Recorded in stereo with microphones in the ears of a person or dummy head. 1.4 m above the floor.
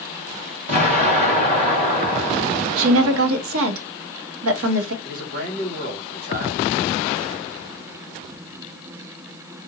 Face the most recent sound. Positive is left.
turn(degrees=-55)  # may be behind; listen again after turning